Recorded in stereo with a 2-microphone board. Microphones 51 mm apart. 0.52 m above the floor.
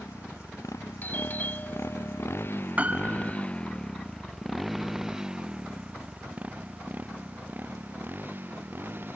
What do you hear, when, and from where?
0.0 s a motorcycle: 80° left; by 9.2 s 40° right (ahead or behind)
1.0 s a doorbell: 40° left (ahead or behind)
2.8 s a piano: 30° right (ahead or behind)